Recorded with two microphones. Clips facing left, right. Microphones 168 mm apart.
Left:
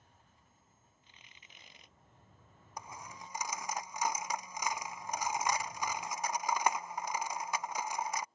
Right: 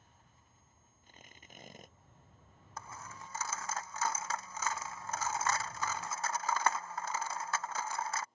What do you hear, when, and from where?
1.0 s tearing paper: 45° right (ahead or behind)
2.8 s a dropped coin: 15° left (ahead or behind)